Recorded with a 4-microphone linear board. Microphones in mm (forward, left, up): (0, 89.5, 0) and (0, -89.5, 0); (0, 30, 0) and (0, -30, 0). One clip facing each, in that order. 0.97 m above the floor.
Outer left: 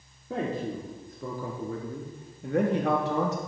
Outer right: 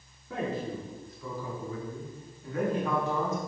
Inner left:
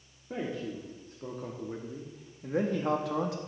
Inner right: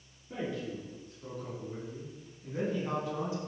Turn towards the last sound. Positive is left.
turn(degrees=75)  # may be behind; listen again after turning